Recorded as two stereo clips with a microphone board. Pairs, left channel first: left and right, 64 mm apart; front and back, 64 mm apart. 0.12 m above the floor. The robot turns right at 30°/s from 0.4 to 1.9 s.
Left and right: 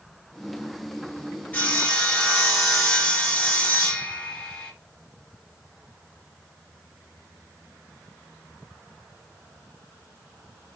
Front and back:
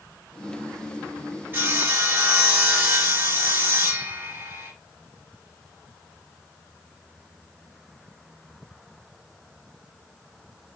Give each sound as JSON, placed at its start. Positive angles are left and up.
{"t": 1.5, "sound": "sawing", "azimuth_deg": 145, "distance_m": 1.3}